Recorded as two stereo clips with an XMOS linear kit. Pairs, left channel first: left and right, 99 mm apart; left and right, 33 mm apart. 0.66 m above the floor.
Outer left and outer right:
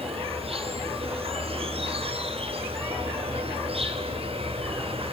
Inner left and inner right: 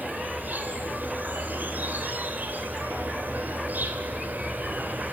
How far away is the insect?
About 2.5 m.